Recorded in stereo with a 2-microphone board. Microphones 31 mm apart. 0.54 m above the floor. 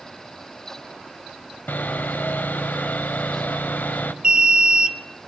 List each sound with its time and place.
1.7 s sawing: 80° left, 0.9 m
4.2 s an alarm: 30° right (ahead or behind), 1.3 m